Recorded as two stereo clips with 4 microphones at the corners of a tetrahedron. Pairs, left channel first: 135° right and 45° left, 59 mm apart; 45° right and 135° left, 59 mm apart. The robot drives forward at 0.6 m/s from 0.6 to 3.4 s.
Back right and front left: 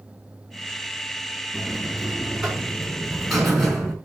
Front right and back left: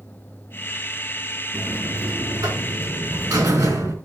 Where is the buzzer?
120° left, 3 m; by 4.0 s 135° left, 4 m.